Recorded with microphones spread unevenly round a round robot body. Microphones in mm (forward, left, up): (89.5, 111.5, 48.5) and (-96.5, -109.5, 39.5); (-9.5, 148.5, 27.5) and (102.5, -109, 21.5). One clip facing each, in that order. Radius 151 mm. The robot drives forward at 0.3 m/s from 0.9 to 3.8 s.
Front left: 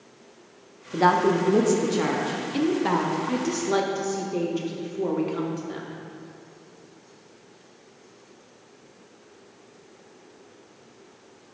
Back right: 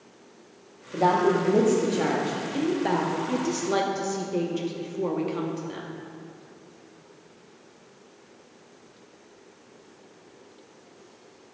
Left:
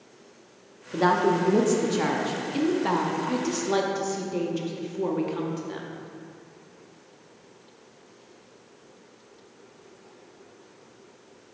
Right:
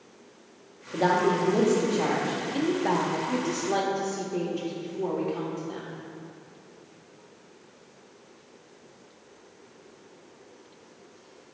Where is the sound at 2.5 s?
60° left, 0.5 m; by 5.9 s 150° left, 0.6 m.